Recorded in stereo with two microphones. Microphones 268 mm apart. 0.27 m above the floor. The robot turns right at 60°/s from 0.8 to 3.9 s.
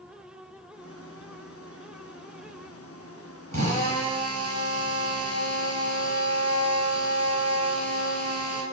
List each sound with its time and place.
3.5 s a drill: 80° right, 2.5 m; by 8.6 s 60° right (ahead or behind), 2.5 m